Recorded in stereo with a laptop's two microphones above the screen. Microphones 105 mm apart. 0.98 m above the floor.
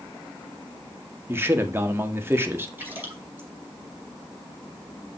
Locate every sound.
1.3 s a man speaking: 25° right (ahead or behind), 1.9 m
2.8 s a splash: 20° right (ahead or behind), 5.5 m